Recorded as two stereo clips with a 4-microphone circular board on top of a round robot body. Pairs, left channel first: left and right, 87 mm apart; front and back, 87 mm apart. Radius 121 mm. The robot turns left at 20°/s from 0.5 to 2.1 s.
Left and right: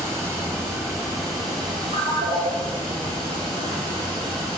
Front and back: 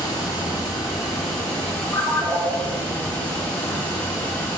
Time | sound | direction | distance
0.0 | running water | 40° right | 0.8 m
1.9 | a ringtone | 75° right | 0.9 m